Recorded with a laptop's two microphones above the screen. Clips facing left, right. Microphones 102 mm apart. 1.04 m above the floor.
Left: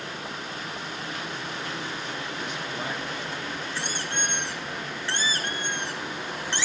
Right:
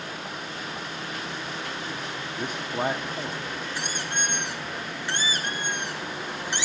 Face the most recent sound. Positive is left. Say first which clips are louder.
# right 1 dB
turn(degrees=-15)  # may be behind; listen again after turning